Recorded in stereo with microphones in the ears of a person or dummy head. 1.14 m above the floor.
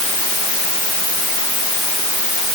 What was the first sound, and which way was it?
Only background noise.